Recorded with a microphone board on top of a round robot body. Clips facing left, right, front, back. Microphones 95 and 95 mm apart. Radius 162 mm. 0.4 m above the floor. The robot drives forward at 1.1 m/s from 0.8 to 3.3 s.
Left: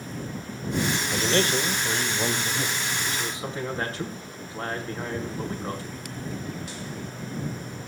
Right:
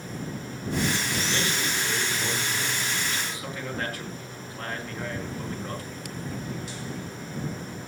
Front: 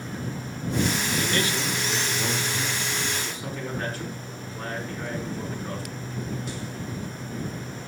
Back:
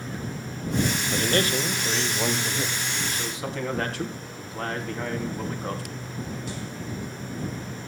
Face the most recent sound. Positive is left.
turn(degrees=155)